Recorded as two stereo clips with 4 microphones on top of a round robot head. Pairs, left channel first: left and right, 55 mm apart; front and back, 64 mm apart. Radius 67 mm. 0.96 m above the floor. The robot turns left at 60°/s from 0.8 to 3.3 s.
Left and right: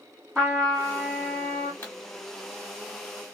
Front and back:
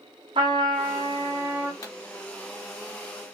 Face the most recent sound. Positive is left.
turn(degrees=-55)